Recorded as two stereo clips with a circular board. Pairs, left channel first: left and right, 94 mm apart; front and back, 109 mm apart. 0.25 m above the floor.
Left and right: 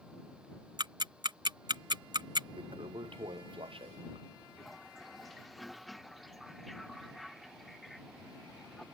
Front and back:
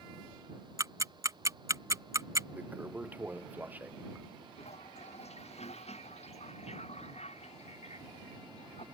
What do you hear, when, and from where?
0.8 s ticking: 120° right
2.6 s a toilet flushing: 105° right
4.6 s a toilet flushing: straight ahead